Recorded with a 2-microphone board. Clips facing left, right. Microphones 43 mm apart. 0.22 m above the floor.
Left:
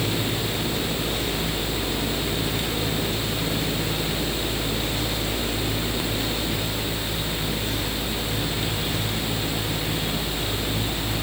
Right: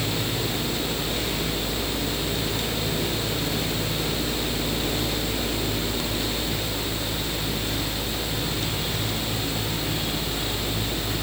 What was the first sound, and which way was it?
Only background noise.